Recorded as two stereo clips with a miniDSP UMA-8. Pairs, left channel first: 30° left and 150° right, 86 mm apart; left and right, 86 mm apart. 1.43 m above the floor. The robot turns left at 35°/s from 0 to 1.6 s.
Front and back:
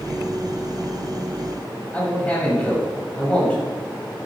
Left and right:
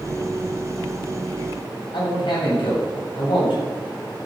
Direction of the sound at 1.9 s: 105° left.